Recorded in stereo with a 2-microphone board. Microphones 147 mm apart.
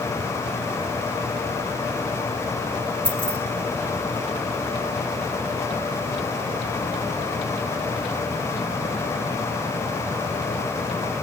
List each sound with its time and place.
3.0 s keys jangling: 35° right (ahead or behind), 4 m